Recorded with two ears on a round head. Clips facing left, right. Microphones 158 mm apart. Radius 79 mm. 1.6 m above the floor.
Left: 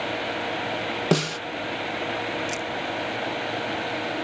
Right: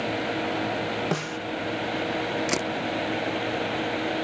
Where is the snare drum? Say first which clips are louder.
Left 6 dB; 45° left (ahead or behind).